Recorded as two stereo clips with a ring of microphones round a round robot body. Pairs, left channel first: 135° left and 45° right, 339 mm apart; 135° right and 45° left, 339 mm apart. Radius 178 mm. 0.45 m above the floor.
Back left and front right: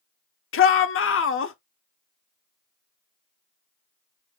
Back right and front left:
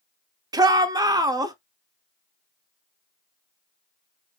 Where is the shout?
115° left, 0.9 m.